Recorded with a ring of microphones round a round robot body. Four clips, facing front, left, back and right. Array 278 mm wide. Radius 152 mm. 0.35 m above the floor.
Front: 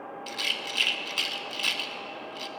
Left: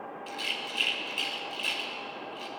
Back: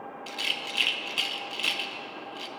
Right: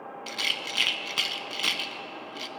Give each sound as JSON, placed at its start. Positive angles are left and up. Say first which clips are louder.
{"t": 0.3, "sound": "a rattle", "louder": "right 4 dB, even", "azimuth_deg": -80, "distance_m": 0.6}